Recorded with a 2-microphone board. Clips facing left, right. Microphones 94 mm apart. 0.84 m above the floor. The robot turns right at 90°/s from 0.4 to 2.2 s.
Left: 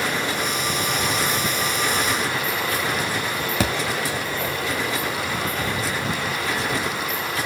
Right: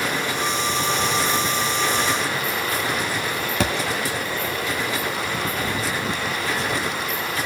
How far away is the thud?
About 1.3 m.